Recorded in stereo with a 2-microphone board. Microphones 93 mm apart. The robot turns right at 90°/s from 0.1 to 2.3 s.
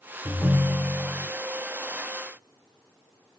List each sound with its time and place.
0.2 s a ringtone: 20° left (ahead or behind), 0.5 m; by 1.3 s 10° left (ahead or behind), 0.5 m